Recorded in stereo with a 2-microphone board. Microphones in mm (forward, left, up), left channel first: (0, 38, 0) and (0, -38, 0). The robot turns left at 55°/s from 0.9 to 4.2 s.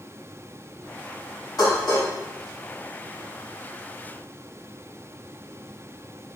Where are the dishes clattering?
60° left (ahead or behind), 1.8 m; by 2.1 s 55° left (ahead or behind), 1.8 m.